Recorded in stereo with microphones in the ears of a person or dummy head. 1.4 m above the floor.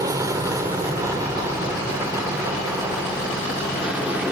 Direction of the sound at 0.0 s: 20° right (ahead or behind).